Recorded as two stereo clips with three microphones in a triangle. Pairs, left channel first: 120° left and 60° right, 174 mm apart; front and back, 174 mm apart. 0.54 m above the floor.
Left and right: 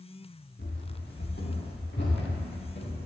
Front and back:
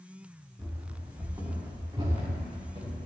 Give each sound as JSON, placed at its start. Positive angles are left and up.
{"t": 0.6, "sound": "running footsteps", "azimuth_deg": 95, "distance_m": 2.0}